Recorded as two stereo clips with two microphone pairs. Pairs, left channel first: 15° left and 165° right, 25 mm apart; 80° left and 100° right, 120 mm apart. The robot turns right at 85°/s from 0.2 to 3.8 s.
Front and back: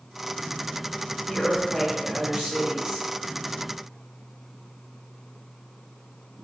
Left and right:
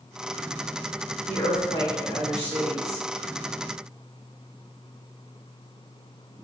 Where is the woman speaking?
80° left, 1.5 m; by 3.1 s 130° right, 1.5 m.